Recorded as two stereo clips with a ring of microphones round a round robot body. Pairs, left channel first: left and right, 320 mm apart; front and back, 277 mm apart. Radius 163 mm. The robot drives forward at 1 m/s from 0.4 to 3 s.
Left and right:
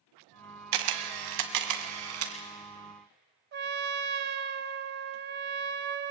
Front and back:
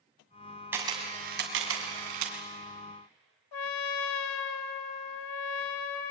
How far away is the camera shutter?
About 1.5 m.